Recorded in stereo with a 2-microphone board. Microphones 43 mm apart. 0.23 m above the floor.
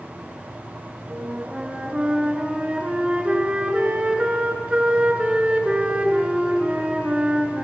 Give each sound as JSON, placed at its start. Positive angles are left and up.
{"t": 1.1, "sound": "a flute", "side_deg": -20, "distance_m": 3.5}